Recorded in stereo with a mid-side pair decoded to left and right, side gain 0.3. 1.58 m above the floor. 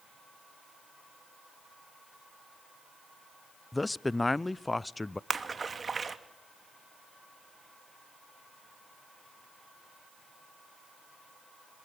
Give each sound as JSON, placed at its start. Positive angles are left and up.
{"t": 3.7, "sound": "a man speaking", "azimuth_deg": 25, "distance_m": 0.6}
{"t": 5.3, "sound": "a splash", "azimuth_deg": -45, "distance_m": 2.5}